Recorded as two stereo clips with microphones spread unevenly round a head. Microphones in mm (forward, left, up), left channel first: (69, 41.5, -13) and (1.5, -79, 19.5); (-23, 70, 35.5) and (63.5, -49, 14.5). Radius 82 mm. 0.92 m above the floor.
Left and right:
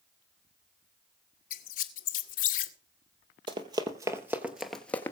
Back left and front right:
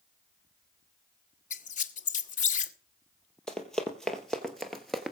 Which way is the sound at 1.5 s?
85° left.